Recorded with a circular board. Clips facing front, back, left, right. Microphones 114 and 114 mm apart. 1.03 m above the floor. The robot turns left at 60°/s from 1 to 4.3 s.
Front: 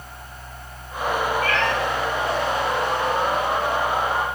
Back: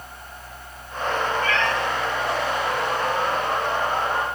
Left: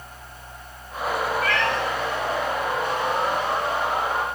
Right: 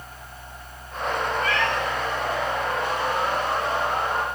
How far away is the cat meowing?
About 1.3 m.